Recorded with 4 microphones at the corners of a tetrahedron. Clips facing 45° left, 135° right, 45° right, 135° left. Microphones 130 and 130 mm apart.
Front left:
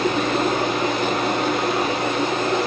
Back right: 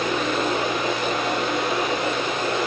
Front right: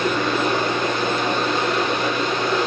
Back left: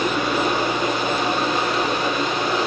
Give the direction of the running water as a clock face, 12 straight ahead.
10 o'clock.